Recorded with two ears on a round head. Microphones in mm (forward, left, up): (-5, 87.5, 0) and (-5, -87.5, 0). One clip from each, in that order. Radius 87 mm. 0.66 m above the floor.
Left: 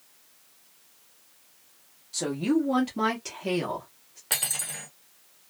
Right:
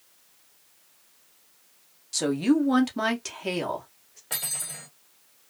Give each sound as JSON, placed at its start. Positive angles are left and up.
{"t": 2.1, "sound": "a woman speaking", "side_deg": -60, "distance_m": 1.0}
{"t": 4.3, "sound": "cutlery clinking", "side_deg": 30, "distance_m": 1.0}